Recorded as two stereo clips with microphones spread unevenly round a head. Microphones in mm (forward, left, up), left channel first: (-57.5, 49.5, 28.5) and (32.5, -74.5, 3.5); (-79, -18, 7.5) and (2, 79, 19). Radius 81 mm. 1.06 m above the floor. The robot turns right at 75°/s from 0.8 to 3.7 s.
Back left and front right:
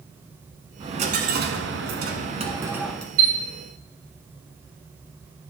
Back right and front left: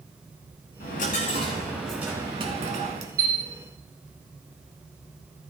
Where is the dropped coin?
115° right, 1.6 m; by 3.1 s 55° left, 1.6 m.